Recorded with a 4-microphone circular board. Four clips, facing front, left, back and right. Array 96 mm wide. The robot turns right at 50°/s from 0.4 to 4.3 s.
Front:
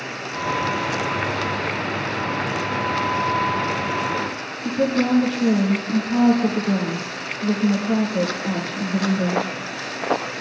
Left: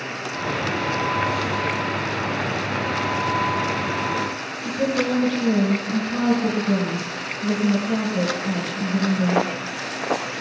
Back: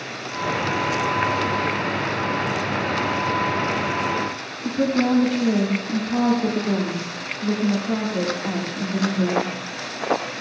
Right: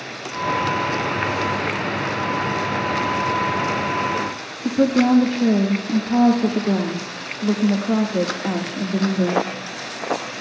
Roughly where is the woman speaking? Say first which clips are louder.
Right 6 dB, even; right.